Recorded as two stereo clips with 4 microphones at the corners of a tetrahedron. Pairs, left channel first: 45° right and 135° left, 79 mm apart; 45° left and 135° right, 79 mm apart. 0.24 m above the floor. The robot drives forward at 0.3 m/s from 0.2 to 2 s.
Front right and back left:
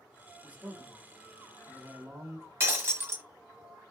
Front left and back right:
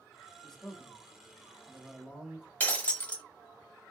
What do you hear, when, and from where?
0.4 s a man speaking: 115° left, 1.0 m; by 2.5 s 155° left, 1.2 m
2.6 s breaking glass: 100° left, 0.9 m